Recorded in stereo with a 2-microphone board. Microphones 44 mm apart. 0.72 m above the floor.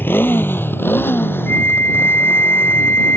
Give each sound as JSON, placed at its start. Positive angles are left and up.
{"t": 0.0, "sound": "a motorcycle", "side_deg": 55}
{"t": 1.5, "sound": "a flute", "side_deg": 55}